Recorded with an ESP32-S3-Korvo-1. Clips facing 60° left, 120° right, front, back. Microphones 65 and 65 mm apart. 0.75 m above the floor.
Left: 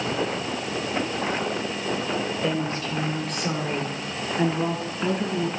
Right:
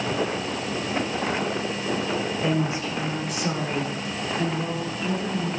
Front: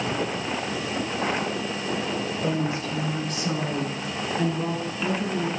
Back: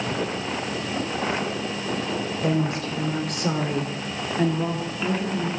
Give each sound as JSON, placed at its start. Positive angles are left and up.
{"t": 2.4, "sound": "a woman speaking", "azimuth_deg": 165, "distance_m": 2.5}